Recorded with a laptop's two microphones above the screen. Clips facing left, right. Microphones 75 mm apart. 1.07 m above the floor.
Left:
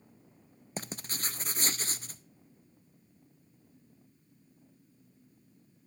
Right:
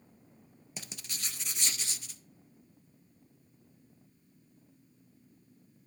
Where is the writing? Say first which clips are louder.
Left 7 dB; 45° left (ahead or behind), 0.5 m.